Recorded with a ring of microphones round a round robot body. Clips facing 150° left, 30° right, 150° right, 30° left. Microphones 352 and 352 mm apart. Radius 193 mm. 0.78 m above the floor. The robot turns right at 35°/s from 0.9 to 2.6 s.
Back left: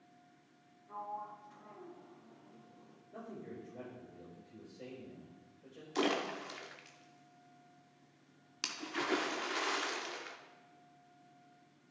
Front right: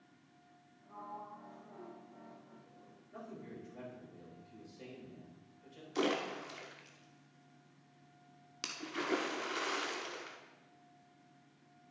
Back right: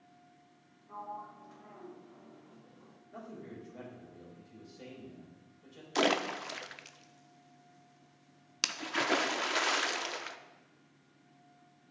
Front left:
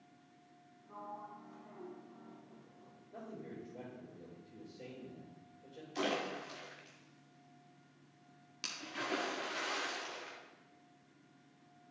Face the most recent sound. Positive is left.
turn(degrees=-125)